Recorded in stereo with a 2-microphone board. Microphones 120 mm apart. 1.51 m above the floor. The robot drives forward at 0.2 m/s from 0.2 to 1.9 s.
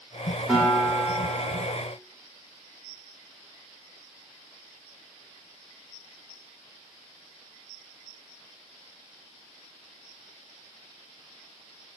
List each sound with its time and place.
0.5 s a guitar: 10° right (ahead or behind), 1.1 m; by 1.7 s 5° right (ahead or behind), 1.3 m